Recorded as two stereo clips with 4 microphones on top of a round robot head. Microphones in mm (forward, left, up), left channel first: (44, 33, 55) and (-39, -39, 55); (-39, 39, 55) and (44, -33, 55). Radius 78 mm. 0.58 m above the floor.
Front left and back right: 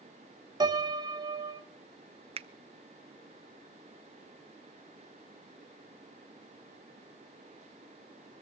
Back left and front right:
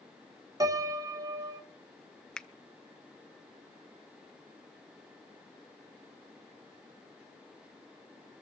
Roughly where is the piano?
Right.